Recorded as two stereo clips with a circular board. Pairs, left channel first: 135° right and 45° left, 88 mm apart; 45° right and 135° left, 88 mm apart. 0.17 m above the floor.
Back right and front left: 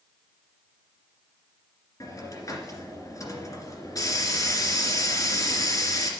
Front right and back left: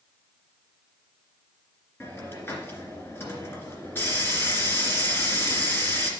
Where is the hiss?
105° right, 2 m.